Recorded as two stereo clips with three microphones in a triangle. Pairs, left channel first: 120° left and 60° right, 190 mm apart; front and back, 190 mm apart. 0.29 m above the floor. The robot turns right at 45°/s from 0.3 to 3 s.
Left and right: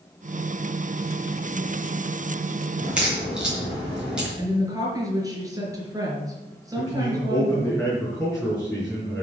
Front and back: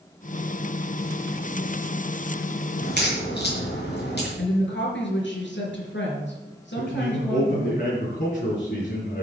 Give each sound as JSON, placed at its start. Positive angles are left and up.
{"t": 2.8, "sound": "a crack", "azimuth_deg": 15, "distance_m": 5.5}
{"t": 4.4, "sound": "a woman speaking", "azimuth_deg": 10, "distance_m": 4.5}
{"t": 6.8, "sound": "a man speaking", "azimuth_deg": 30, "distance_m": 5.0}